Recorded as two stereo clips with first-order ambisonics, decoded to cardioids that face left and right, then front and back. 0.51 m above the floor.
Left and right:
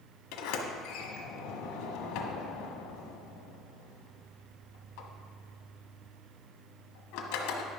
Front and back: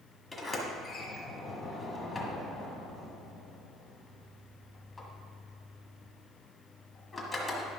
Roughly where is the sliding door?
Left.